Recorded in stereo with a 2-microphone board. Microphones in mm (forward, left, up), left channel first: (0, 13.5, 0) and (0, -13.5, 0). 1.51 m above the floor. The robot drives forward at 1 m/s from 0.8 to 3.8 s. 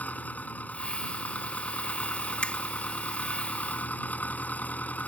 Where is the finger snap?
45° left (ahead or behind); by 2.6 s 50° left (ahead or behind).